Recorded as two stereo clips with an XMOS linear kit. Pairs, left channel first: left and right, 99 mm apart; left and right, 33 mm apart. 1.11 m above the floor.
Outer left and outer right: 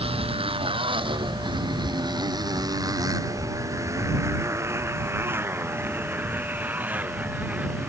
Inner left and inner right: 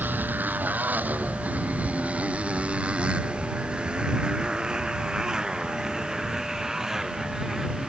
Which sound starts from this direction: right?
A motorcycle, at 0.0 s.